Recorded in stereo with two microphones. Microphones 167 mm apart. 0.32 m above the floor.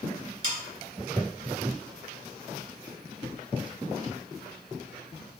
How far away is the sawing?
About 1.4 m.